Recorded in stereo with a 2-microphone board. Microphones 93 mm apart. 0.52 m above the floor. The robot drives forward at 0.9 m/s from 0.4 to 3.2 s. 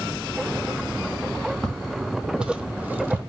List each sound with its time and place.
1.6 s footsteps: 5° left (ahead or behind), 1.1 m; by 3.2 s 25° right (ahead or behind), 0.9 m